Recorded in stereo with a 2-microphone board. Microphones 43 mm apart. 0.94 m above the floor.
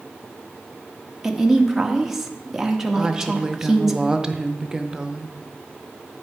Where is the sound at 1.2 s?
10° right (ahead or behind), 1.1 m.